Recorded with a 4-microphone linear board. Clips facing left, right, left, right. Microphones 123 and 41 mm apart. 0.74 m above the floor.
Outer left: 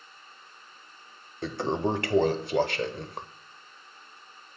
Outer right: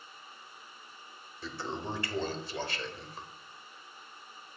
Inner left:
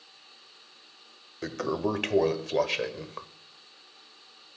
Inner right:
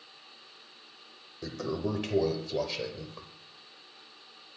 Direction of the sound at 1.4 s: 65° left (ahead or behind).